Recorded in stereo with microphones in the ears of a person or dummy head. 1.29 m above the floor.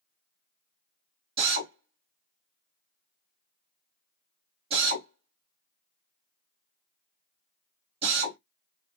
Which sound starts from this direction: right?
A drill, at 1.4 s.